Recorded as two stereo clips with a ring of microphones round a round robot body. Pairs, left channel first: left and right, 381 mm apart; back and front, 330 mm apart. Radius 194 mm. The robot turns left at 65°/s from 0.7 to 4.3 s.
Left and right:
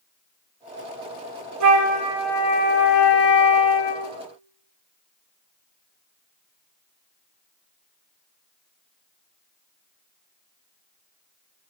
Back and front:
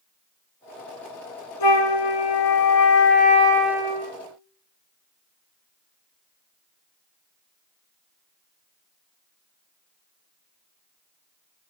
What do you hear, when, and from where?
1.6 s a flute: 140° right, 2 m; by 4.1 s 60° left, 2 m